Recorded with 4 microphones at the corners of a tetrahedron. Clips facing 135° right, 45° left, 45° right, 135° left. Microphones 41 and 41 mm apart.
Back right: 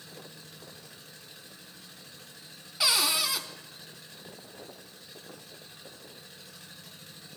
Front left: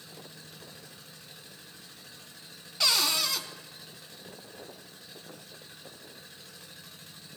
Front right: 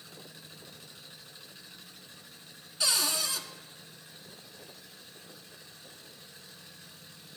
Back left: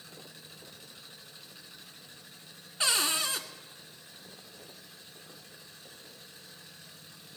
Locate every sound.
2.8 s a cupboard door: 150° left, 0.8 m